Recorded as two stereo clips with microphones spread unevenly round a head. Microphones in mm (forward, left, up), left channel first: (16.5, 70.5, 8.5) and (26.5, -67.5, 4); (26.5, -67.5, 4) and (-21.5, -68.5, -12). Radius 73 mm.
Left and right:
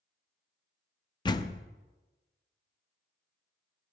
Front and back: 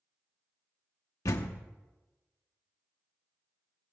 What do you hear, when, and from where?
1.2 s a door slam: 30° left, 0.6 m